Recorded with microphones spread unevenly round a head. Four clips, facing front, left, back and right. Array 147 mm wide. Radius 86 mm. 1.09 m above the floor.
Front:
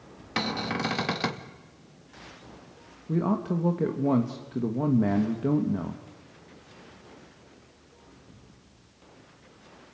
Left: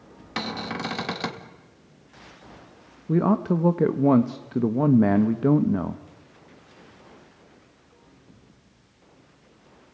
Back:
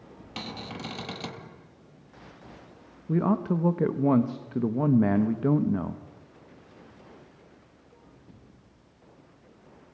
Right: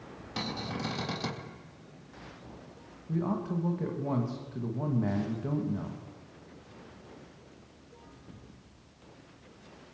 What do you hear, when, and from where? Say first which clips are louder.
0.4 s a cupboard door: left 6 dB, front 9 dB; 35° left, 2 m
3.1 s a man speaking: left 10 dB, back 2 dB; 90° left, 1.1 m